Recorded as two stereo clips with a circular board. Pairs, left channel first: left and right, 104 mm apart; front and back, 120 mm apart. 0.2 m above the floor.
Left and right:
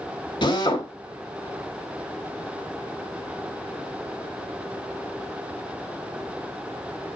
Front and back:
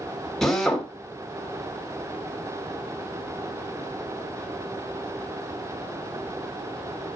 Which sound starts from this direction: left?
A drill, at 0.4 s.